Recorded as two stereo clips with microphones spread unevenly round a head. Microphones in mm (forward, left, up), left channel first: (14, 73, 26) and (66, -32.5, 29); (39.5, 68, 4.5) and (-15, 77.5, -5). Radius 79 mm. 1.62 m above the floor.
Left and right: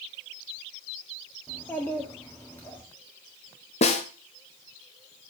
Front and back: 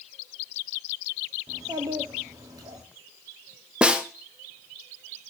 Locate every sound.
1.5 s a child speaking: 165° right, 2 m
3.8 s a snare drum: 95° left, 1.1 m